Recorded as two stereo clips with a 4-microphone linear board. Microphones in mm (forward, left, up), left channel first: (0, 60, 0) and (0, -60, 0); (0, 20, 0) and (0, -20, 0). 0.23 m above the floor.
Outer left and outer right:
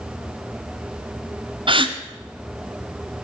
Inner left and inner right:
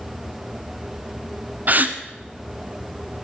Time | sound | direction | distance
1.7 | a gasp | 45° right (ahead or behind) | 0.9 m